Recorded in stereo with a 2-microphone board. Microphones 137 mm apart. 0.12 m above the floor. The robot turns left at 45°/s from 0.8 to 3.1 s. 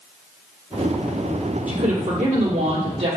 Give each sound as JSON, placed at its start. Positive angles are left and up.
{"t": 1.7, "sound": "a woman speaking", "azimuth_deg": -75, "distance_m": 3.0}